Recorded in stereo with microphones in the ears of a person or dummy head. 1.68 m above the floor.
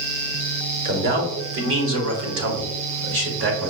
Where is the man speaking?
50° right (ahead or behind), 1.4 m; by 3.7 s 65° right (ahead or behind), 1.4 m.